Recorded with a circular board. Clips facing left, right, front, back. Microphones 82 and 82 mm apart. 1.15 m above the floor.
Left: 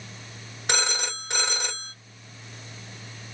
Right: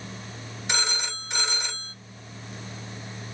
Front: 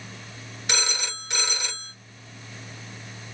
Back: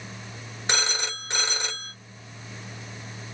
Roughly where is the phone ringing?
Behind left.